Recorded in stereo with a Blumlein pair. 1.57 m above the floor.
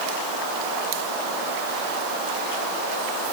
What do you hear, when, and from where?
Only background noise.